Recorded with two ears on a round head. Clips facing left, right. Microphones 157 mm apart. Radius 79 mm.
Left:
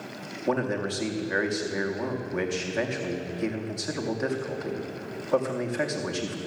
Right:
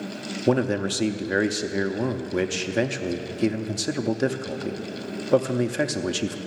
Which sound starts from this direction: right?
A man speaking, at 0.5 s.